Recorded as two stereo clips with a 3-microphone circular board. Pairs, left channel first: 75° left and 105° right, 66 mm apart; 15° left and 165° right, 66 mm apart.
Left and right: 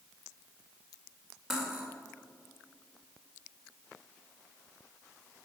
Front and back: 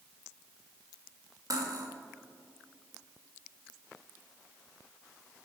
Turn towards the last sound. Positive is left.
turn(degrees=175)